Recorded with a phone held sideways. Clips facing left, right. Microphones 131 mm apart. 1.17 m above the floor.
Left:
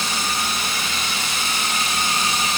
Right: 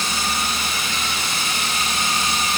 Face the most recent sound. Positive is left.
No sound to turn to.